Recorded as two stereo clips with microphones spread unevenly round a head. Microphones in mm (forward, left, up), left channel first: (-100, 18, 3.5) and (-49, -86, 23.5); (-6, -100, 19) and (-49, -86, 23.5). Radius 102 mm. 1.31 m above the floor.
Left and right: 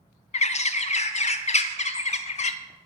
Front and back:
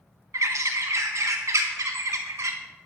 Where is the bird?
145° left, 0.9 m.